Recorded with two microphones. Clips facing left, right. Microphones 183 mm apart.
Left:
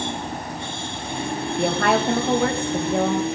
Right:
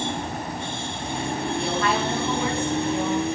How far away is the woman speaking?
About 2.0 m.